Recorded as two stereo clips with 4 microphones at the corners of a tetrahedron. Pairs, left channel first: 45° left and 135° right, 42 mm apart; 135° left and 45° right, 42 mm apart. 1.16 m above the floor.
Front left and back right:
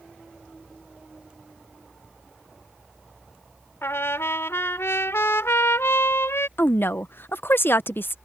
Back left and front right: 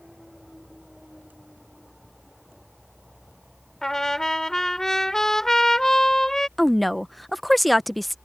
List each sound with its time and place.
3.8 s a trumpet: 55° left
6.6 s a woman speaking: 45° left